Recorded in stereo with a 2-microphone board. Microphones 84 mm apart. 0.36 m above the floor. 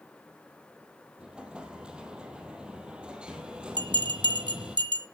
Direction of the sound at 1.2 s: 10° right (ahead or behind).